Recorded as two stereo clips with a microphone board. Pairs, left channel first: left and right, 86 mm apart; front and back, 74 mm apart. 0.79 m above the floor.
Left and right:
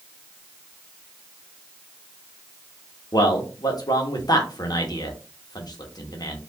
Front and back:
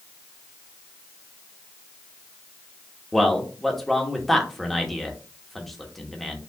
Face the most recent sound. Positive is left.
turn(degrees=85)